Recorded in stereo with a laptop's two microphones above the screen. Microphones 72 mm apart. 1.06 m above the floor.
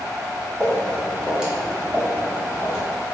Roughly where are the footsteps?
Centre.